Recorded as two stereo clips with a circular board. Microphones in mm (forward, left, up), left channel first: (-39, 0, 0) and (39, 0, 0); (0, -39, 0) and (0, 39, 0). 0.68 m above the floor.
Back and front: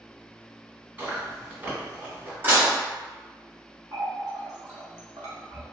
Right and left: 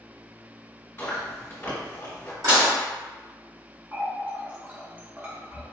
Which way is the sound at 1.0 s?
50° right.